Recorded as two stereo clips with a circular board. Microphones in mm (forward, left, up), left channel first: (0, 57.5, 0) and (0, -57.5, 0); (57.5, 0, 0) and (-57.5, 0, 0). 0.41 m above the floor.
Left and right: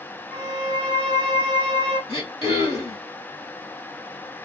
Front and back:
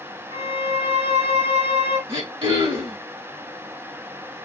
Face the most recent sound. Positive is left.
turn(degrees=140)